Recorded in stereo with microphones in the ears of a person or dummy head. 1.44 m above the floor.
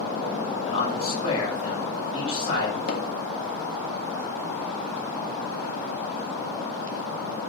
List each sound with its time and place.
0.6 s a man speaking: 30° left (ahead or behind), 6 m
2.9 s hammering: 60° left (ahead or behind), 2 m